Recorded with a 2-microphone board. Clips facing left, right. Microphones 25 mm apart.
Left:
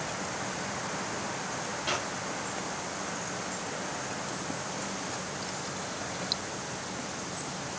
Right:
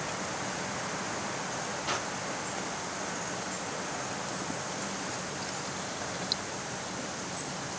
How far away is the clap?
About 2 m.